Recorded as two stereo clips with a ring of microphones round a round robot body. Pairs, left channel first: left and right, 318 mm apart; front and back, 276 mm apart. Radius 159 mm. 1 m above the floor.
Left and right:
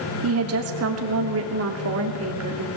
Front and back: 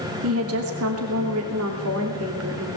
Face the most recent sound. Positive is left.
turn(degrees=-135)